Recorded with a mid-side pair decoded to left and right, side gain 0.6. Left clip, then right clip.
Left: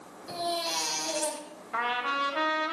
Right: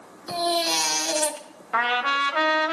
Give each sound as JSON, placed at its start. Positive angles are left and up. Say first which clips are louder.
{"t": 0.3, "sound": "a baby crying", "louder": "right 7 dB", "azimuth_deg": -45, "distance_m": 1.8}
{"t": 1.7, "sound": "a trumpet", "louder": "right 7 dB", "azimuth_deg": -45, "distance_m": 1.7}